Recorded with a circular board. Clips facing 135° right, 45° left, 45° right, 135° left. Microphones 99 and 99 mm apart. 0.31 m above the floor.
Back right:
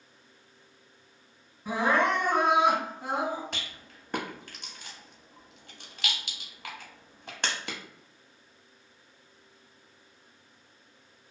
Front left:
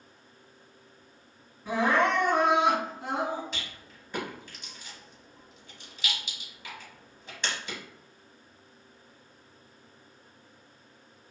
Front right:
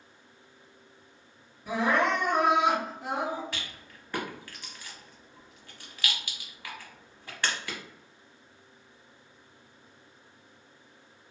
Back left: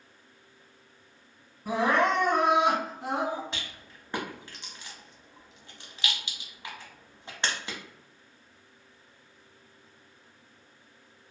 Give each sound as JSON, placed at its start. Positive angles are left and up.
{"t": 1.6, "sound": "crying", "azimuth_deg": 150, "distance_m": 2.0}
{"t": 3.5, "sound": "a rattle", "azimuth_deg": -160, "distance_m": 0.6}